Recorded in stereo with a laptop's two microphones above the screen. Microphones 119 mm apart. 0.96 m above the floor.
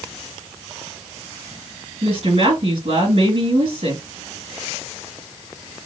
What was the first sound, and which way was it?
A woman speaking, 55° right (ahead or behind).